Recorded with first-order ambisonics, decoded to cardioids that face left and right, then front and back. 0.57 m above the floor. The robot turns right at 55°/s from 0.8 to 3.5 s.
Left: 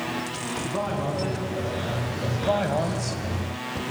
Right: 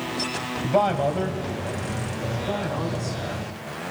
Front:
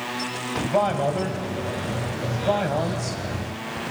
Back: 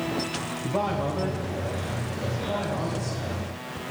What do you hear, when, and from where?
0.6 s a man speaking: 60° right, 2.5 m; by 3.9 s 90° left, 2.5 m